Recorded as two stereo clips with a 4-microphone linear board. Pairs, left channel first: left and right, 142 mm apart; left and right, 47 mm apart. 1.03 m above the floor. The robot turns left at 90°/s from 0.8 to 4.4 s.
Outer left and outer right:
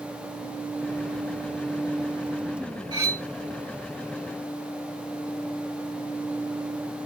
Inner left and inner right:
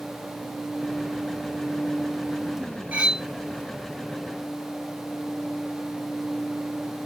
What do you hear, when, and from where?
2.9 s cutlery clinking: 150° right, 1.3 m; by 3.3 s 175° left, 1.3 m